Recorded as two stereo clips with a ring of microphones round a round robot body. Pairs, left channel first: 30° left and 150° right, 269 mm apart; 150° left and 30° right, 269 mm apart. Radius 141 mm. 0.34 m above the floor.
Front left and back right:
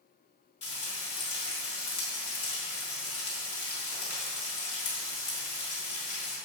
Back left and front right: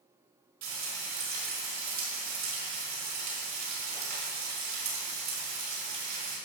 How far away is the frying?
About 4.5 m.